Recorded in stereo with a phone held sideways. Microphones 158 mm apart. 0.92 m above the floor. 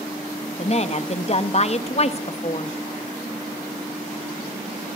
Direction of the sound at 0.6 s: 40° left (ahead or behind).